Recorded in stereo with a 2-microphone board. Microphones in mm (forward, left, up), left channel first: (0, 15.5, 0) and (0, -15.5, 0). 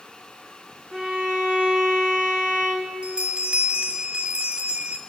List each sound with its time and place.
0.9 s a violin: 25° right (ahead or behind), 3.5 m
3.0 s a bell: 40° right (ahead or behind), 1.0 m